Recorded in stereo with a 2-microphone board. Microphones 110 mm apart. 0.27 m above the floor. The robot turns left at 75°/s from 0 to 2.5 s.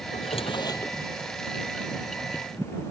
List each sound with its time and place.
0.1 s a drawer: 80° left; by 1.0 s 15° left